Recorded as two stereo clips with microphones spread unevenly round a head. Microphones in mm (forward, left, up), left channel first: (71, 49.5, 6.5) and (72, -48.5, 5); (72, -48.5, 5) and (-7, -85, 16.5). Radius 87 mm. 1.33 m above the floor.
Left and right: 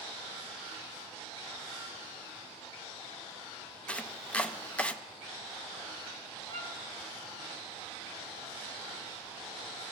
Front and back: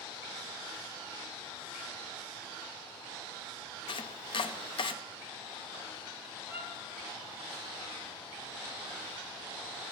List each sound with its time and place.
3.9 s chopping: 10° left, 0.5 m
6.5 s a violin: 55° left, 2.5 m